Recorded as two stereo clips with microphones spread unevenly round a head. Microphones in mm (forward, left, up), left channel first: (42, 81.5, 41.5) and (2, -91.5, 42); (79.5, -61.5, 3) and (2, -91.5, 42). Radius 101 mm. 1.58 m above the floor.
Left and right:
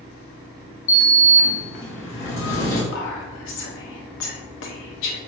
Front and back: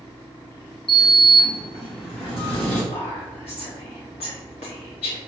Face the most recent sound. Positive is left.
turn(degrees=65)